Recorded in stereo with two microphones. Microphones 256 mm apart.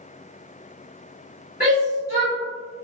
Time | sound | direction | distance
1.6 | a shout | 40° left (ahead or behind) | 1.5 m